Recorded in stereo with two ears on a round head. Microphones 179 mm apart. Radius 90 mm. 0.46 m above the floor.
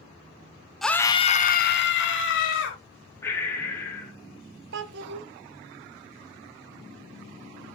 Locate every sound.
0.8 s a scream: centre (ahead or behind), 1.0 m; by 2.8 s 70° left (ahead or behind), 2.5 m
3.2 s breathing: 15° left (ahead or behind), 1.7 m
4.7 s a child speaking: 60° right (ahead or behind), 0.8 m